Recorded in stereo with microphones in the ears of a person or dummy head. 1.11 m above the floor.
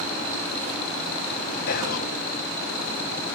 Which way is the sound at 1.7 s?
50° left (ahead or behind).